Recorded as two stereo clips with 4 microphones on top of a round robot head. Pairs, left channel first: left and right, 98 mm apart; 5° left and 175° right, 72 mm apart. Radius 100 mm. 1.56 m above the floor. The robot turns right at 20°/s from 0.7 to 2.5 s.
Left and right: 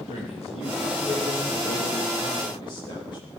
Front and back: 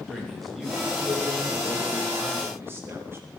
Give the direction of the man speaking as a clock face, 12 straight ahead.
9 o'clock.